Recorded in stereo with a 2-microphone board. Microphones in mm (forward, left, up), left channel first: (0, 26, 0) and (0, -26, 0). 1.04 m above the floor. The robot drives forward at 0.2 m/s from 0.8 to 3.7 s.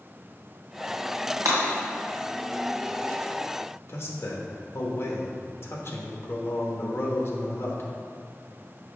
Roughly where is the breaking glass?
Right.